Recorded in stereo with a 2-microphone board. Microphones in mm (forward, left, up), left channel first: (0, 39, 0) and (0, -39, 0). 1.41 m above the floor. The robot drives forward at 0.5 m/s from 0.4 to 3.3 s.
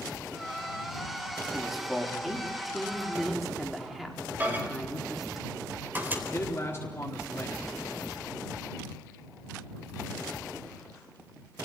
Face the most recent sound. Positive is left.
turn(degrees=25)  # may be behind; listen again after turning